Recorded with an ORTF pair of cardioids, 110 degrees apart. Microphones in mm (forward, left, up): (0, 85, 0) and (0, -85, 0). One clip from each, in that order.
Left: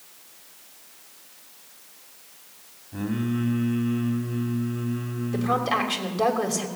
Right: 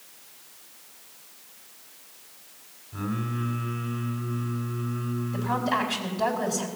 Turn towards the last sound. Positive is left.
turn(degrees=60)